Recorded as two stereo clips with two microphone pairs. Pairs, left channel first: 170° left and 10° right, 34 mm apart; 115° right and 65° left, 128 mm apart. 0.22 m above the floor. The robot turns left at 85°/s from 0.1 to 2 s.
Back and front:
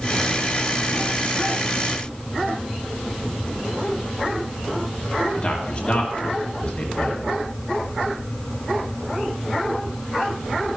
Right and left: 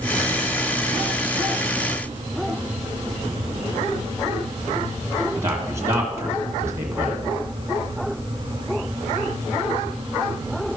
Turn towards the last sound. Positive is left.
turn(degrees=130)